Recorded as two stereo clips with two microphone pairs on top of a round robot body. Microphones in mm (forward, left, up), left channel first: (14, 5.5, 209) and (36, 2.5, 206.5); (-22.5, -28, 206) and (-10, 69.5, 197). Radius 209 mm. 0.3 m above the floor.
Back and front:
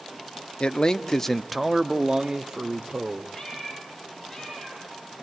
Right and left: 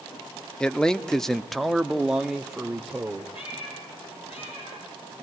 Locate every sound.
0.6 s a man speaking: straight behind, 1.2 m; by 3.2 s 5° left, 1.8 m
3.3 s a cat meowing: 120° right, 7.5 m